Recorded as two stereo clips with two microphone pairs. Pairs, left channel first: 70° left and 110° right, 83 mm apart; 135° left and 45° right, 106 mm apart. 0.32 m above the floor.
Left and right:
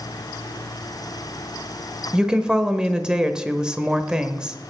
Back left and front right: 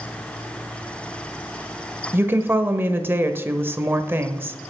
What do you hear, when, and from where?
2.1 s a woman speaking: 50° right, 0.9 m